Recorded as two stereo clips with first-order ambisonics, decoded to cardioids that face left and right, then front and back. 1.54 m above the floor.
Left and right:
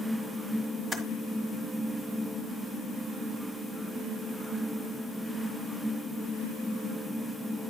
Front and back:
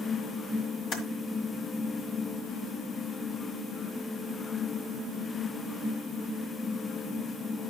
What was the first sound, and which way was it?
Typing on a keyboard, 25° right.